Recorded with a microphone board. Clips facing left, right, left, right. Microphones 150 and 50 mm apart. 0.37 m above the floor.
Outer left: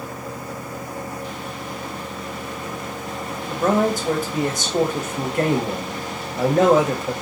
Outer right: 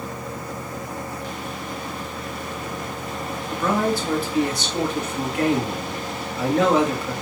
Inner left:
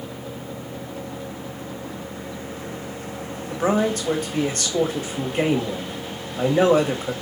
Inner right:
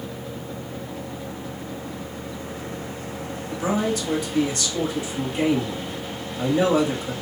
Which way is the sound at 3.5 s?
45° left (ahead or behind).